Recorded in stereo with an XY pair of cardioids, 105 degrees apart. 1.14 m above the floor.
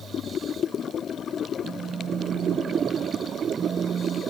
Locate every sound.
1.6 s a phone buzzing: 55° right, 1.7 m